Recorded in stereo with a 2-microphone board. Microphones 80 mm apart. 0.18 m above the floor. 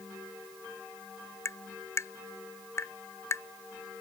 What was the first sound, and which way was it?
Tapping, 35° left (ahead or behind).